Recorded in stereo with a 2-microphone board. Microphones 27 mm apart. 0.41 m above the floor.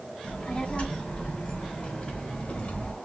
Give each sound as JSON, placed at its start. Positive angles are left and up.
{"t": 0.2, "sound": "a child speaking", "side_deg": 40, "distance_m": 3.0}